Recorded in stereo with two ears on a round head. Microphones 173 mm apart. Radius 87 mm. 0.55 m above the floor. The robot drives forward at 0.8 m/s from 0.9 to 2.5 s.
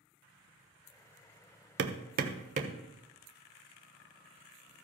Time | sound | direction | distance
1.8 | hammering | 60° right (ahead or behind) | 0.9 m